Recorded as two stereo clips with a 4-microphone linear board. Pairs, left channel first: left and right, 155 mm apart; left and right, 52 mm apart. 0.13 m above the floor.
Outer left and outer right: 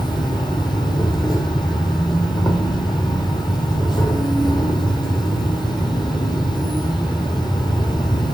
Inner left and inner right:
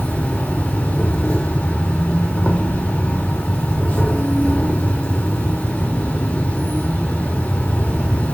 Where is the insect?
30° left (ahead or behind), 1.1 m.